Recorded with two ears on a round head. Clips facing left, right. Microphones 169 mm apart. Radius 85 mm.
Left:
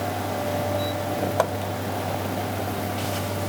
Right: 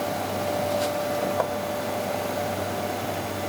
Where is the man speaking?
I don't hear a man speaking.